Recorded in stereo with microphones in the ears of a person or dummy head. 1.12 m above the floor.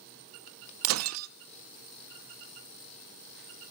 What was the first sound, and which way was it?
Breaking glass, 80° right.